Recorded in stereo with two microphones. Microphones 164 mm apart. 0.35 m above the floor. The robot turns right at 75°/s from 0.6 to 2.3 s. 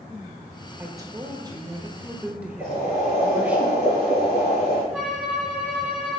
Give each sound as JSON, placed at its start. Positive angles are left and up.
{"t": 0.8, "sound": "a woman speaking", "side_deg": -15, "distance_m": 0.9}
{"t": 2.6, "sound": "boiling", "side_deg": -40, "distance_m": 4.0}
{"t": 4.9, "sound": "a violin", "side_deg": -5, "distance_m": 3.5}